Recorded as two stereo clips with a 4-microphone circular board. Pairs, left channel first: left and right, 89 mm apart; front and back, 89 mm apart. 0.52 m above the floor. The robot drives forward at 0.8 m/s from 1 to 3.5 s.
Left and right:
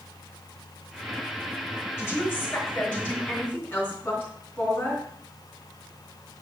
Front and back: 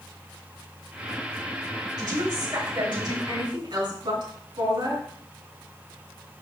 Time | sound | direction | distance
2.0 | a woman speaking | 150° left | 2 m